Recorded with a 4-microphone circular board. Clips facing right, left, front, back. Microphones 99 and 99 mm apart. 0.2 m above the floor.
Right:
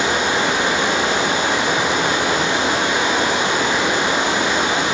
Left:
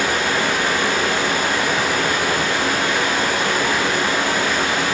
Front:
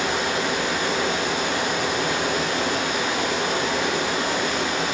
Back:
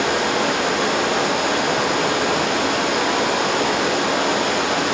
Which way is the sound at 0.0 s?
160° right.